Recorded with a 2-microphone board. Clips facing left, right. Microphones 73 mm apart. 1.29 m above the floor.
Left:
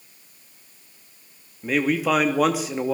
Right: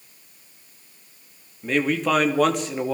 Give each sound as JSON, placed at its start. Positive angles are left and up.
{"t": 1.6, "sound": "a man speaking", "side_deg": 5, "distance_m": 2.5}